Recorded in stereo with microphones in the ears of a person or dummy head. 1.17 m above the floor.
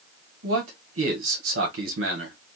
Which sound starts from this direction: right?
A man speaking, at 0.4 s.